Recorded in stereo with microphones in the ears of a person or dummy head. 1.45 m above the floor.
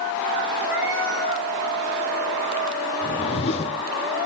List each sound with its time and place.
0.6 s a cat meowing: 70° right (ahead or behind), 7.5 m
3.0 s a whoosh: 30° left (ahead or behind), 0.6 m